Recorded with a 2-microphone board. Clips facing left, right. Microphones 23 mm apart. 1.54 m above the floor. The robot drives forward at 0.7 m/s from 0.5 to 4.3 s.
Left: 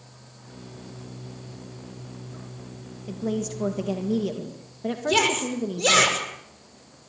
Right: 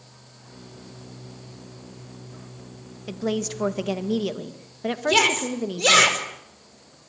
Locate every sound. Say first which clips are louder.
3.1 s a woman speaking: right 2 dB; 55° right (ahead or behind), 1.6 m; by 6.1 s 35° right (ahead or behind), 2 m
5.1 s a shout: right 2 dB; 15° right (ahead or behind), 5 m